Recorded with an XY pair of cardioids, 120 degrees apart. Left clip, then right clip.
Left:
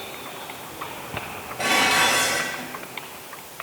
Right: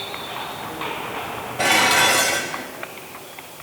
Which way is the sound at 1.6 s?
45° right.